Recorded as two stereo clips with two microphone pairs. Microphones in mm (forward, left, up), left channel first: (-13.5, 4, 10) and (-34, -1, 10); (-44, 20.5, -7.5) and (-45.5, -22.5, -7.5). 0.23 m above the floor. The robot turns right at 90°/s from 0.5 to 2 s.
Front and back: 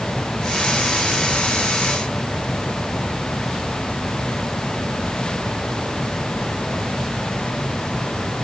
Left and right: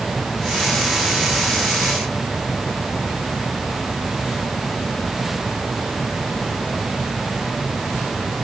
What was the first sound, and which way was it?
Only background noise.